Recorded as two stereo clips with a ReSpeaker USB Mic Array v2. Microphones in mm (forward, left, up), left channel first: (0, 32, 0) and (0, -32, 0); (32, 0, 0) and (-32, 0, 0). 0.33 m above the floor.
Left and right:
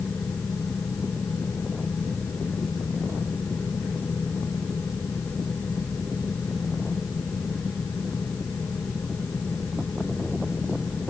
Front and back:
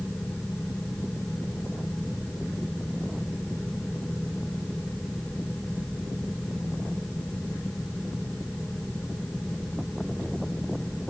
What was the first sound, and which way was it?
Only background noise.